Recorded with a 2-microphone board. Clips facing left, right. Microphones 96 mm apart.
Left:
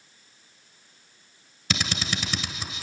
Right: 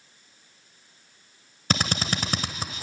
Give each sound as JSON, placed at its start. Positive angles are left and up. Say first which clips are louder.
{"t": 1.7, "sound": "a drill", "louder": "right 3 dB", "side_deg": -40, "distance_m": 1.4}